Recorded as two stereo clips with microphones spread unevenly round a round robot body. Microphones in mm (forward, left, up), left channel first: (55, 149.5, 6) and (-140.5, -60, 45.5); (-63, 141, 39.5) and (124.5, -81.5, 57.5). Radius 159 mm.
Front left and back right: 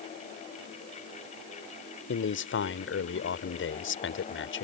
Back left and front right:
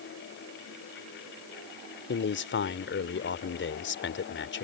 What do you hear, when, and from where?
2.1 s a man speaking: 85° left